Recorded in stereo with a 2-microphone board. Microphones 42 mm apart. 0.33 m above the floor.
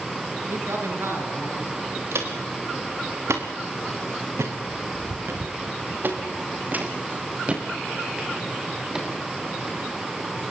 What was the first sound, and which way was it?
A man speaking, 75° right (ahead or behind).